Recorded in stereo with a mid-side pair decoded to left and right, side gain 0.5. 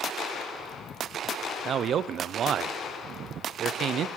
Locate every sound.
1.6 s a man speaking: 55° right, 0.7 m